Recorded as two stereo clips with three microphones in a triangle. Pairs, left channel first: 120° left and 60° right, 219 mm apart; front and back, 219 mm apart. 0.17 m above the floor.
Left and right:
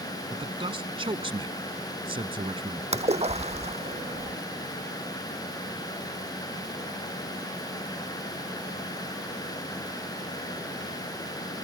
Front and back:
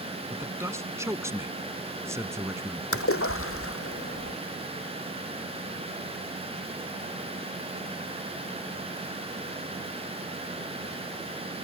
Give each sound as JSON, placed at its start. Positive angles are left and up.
{"t": 0.3, "sound": "a man speaking", "azimuth_deg": -110}
{"t": 2.9, "sound": "a splash", "azimuth_deg": 0}